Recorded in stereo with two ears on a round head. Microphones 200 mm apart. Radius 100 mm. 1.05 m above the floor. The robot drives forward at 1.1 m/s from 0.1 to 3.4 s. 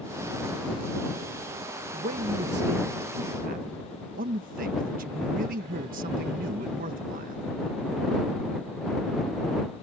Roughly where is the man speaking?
Right.